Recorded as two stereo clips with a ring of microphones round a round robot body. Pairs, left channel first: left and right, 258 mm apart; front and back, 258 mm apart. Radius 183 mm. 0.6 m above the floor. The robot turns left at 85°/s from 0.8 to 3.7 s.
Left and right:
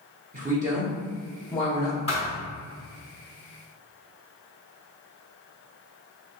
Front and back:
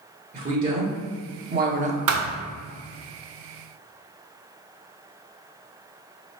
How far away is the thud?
About 0.6 m.